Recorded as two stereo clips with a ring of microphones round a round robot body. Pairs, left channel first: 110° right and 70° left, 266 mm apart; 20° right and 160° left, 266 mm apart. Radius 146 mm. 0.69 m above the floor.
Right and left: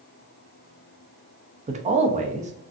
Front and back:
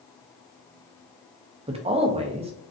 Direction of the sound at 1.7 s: 110° left.